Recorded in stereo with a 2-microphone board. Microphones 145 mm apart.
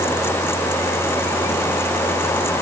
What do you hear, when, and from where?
Only background noise.